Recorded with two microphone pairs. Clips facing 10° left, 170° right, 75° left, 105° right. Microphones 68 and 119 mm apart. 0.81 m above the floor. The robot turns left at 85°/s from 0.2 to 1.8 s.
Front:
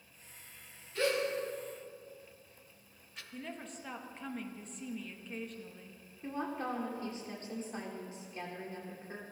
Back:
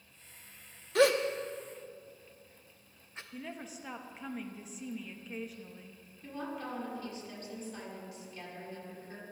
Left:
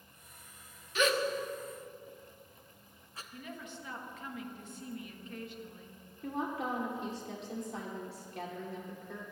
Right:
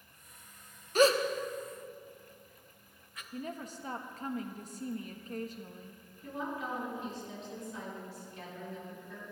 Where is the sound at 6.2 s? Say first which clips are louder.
Front 3 dB, left 3 dB; 65° left, 2.5 m.